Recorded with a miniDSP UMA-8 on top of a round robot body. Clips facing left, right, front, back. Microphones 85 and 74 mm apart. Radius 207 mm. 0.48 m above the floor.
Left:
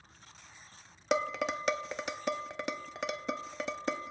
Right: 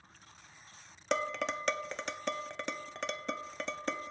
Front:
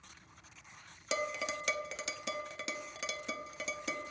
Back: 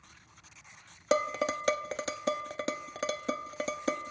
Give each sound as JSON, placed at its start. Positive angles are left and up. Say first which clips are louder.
{"t": 1.1, "sound": "dishes clattering", "louder": "left 2 dB, back 8 dB", "azimuth_deg": 170, "distance_m": 0.7}